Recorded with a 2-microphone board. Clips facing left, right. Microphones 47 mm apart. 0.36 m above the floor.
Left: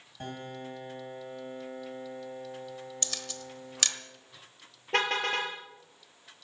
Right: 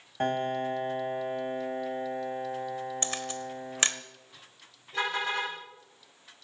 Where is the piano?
50° right (ahead or behind), 1.8 m.